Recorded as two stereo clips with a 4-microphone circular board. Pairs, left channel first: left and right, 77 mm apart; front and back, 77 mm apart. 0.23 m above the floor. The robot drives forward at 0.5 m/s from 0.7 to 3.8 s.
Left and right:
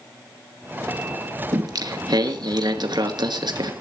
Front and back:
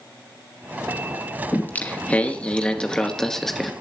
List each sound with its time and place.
1.5 s singing: 65° right, 3 m; by 3.7 s 90° right, 2.5 m